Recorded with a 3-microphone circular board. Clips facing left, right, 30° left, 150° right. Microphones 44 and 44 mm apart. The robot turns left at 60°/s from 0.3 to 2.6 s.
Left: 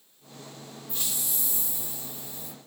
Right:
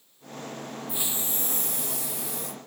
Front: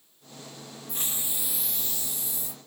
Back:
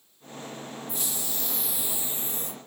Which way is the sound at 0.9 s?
15° right.